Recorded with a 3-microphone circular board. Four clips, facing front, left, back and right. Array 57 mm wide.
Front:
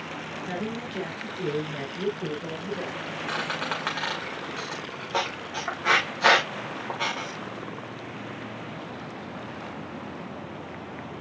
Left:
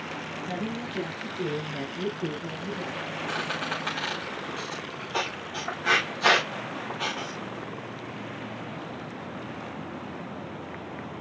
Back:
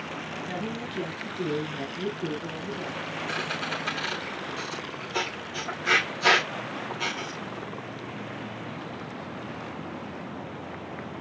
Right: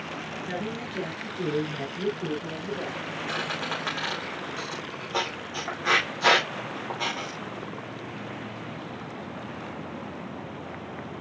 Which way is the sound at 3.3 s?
15° right.